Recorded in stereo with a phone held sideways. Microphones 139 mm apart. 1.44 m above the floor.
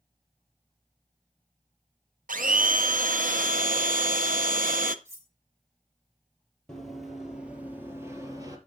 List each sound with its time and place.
2.3 s a blender: 75° right (ahead or behind), 0.7 m
5.0 s cutlery clinking: 20° right (ahead or behind), 1.7 m
6.7 s running footsteps: 5° left (ahead or behind), 2.5 m; by 8.6 s 25° right (ahead or behind), 2 m